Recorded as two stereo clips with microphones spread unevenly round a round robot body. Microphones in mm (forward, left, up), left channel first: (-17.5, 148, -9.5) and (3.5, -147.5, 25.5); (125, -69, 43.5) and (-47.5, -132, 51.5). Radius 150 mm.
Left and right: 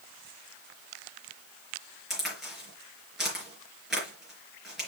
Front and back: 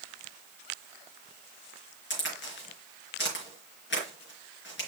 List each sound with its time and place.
2.1 s a crack: straight ahead, 4 m